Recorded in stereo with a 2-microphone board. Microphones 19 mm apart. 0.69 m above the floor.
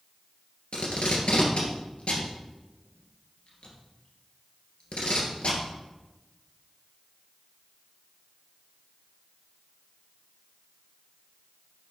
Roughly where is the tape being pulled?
Left.